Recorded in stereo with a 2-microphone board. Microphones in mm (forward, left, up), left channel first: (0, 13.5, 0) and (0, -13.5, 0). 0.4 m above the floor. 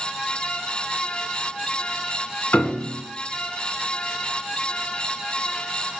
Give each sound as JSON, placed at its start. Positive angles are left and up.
{"t": 2.5, "sound": "a piano", "side_deg": 75, "distance_m": 2.0}